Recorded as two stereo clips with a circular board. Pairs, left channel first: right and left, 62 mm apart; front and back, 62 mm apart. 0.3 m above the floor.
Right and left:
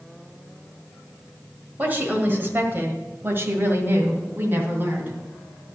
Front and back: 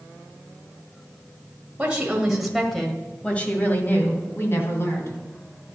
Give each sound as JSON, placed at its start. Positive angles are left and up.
{"t": 1.8, "sound": "a woman speaking", "azimuth_deg": 130, "distance_m": 1.4}